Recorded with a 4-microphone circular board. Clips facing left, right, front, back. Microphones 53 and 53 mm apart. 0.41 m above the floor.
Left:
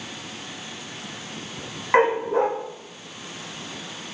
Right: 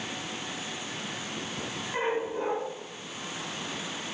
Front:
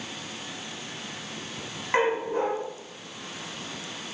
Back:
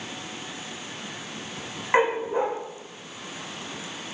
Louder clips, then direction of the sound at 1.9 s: Left 11 dB, back 2 dB; 105° left.